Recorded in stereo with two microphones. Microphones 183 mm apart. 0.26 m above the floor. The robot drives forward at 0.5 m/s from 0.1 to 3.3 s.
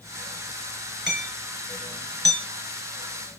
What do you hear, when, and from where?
1.1 s hammering: 75° right (ahead or behind), 3.5 m; by 2.5 s 70° right (ahead or behind), 3.5 m